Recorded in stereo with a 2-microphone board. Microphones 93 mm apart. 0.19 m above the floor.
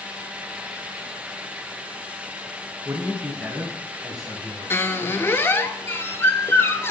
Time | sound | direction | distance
2.9 | a man speaking | 25° right (ahead or behind) | 1.2 m
4.7 | a squeak | 25° left (ahead or behind) | 0.6 m